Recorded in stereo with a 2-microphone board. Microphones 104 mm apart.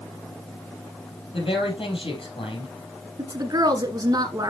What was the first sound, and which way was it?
A woman speaking, 60° left (ahead or behind).